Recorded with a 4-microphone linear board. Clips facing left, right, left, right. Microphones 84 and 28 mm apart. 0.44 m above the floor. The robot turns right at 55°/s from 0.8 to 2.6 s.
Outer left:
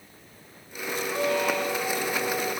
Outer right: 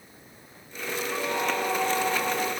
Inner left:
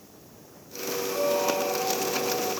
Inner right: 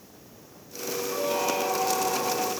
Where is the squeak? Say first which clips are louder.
Outer left 3 dB, inner left 2 dB; 155° right, 2.5 m; by 2.5 s 80° right, 2.5 m.